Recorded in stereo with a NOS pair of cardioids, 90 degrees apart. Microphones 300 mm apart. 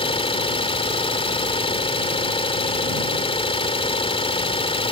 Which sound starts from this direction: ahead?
An engine running, at 0.0 s.